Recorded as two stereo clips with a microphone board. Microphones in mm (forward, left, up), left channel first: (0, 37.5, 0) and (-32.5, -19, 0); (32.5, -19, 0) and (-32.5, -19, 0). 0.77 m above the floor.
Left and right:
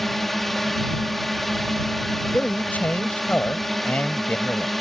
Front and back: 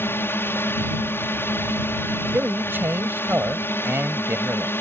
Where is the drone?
25° right.